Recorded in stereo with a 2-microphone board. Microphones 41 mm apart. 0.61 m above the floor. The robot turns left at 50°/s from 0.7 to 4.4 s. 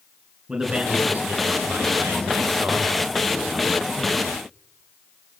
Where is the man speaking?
20° right, 9 m; by 4.2 s 165° left, 9 m.